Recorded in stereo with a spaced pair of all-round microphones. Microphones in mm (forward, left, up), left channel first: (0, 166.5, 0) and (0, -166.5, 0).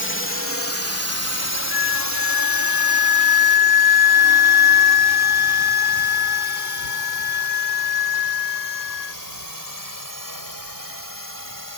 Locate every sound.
0.0 s a drone: 35° left (ahead or behind); by 11.8 s 80° left
1.7 s a flute: 45° right (ahead or behind)